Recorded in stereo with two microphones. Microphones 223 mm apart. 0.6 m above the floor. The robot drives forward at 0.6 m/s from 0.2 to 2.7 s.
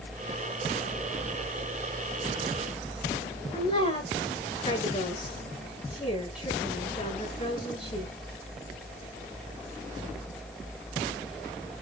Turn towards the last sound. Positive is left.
turn(degrees=30)  # may be behind; listen again after turning